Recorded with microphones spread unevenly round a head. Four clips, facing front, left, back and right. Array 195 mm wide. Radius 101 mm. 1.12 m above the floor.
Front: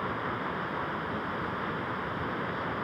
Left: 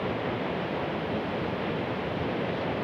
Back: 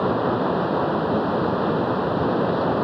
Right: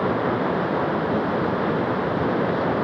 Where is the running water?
135° right.